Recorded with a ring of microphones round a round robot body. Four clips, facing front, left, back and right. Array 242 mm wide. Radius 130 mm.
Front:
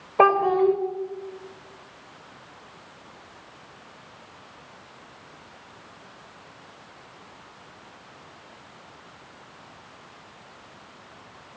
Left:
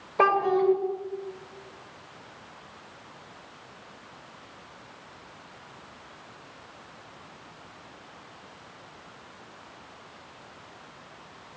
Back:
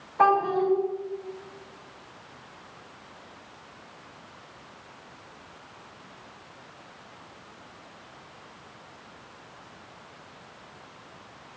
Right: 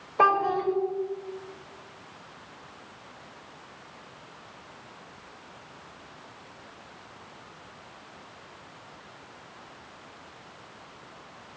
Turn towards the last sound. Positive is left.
turn(degrees=10)